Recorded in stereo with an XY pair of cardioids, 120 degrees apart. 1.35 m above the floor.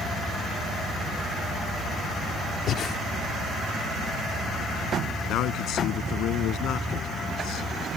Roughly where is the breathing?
Ahead left.